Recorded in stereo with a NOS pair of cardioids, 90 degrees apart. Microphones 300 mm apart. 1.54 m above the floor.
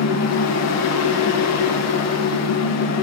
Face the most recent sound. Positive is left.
turn(degrees=65)